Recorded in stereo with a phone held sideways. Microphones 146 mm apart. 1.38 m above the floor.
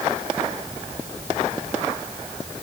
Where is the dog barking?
I don't hear a dog barking.